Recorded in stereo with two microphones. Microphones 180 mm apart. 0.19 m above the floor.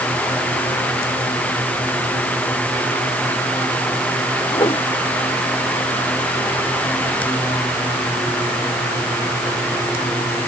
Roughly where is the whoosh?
Left.